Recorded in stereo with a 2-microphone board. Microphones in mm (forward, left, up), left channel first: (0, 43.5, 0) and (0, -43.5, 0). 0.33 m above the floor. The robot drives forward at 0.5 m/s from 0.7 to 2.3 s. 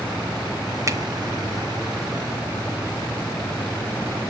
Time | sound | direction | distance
0.9 | a finger snap | 35° right (ahead or behind) | 1.0 m